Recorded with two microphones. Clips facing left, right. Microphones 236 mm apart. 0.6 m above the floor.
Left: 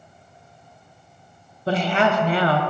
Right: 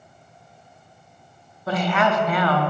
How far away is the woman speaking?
About 0.6 m.